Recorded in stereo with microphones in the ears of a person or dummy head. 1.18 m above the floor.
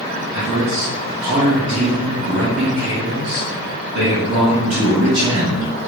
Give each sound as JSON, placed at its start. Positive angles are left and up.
{"t": 0.3, "sound": "a man speaking", "side_deg": -60, "distance_m": 1.9}